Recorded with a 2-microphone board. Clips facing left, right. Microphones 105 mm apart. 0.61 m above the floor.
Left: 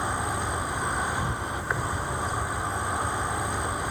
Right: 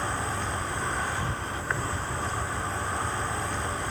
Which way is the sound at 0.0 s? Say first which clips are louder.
Left 2 dB; 15° left (ahead or behind).